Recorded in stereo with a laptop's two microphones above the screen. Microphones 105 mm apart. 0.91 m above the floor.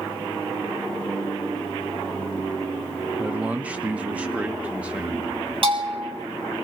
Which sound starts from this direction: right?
A bell, at 5.6 s.